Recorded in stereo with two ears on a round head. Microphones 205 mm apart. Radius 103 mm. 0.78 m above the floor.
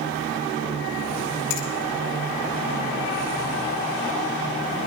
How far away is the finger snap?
About 3 m.